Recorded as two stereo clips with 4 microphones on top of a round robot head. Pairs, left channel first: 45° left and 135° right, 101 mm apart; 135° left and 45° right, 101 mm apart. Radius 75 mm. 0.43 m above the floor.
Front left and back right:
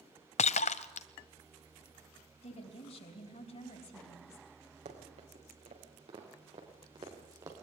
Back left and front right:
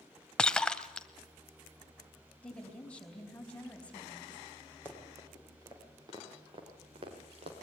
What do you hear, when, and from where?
0.4 s breaking glass: 50° left, 0.8 m
2.4 s a woman speaking: 55° left, 4 m
4.8 s running footsteps: 115° right, 6.5 m; by 7.6 s 70° right, 5.5 m